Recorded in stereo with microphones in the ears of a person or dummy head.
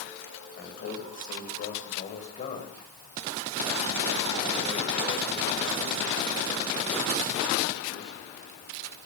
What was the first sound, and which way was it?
A man speaking, 50° left (ahead or behind).